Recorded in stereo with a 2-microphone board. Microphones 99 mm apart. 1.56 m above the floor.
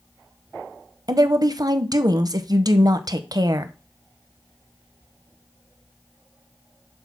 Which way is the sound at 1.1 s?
40° right (ahead or behind).